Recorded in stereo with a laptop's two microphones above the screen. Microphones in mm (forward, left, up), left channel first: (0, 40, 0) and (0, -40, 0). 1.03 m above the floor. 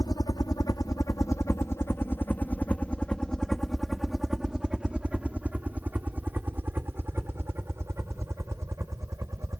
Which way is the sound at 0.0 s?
55° left (ahead or behind).